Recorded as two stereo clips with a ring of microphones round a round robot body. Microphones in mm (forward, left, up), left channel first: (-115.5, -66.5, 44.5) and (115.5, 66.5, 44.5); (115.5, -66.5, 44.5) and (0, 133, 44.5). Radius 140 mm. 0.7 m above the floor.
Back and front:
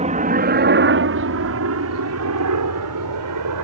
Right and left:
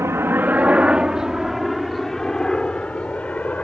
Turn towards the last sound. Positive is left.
turn(degrees=25)